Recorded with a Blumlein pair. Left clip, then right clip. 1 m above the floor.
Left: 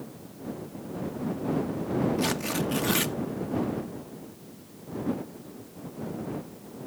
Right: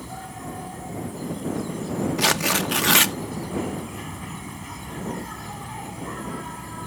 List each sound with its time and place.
0.0 s an insect: 45° right
2.2 s tearing paper: 60° right